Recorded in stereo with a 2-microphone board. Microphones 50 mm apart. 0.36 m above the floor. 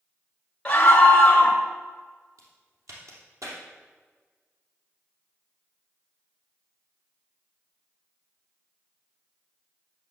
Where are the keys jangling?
No keys jangling in this recording.